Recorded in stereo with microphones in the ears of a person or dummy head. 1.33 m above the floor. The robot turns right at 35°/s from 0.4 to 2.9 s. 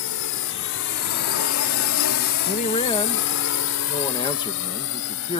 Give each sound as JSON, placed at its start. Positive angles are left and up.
{"t": 0.0, "sound": "a drone", "side_deg": 75}
{"t": 2.5, "sound": "a man speaking", "side_deg": 35}